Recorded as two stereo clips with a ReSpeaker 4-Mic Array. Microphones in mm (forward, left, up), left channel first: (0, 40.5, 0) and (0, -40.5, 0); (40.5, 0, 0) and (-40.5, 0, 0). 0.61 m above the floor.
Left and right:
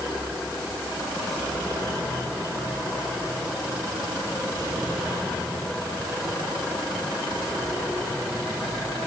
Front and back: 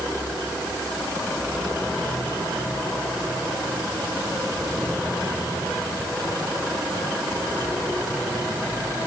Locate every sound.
Only background noise.